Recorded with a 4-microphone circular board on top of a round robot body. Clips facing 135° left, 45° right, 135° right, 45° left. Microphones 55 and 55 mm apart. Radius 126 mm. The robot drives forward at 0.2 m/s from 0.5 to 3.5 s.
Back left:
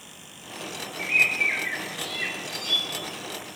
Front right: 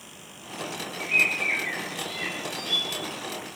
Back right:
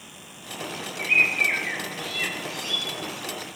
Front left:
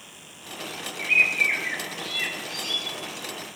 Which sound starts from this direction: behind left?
A bird, at 1.0 s.